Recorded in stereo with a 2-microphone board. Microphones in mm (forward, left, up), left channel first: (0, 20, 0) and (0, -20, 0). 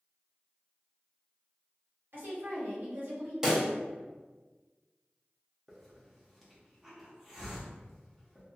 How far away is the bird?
No bird in this recording.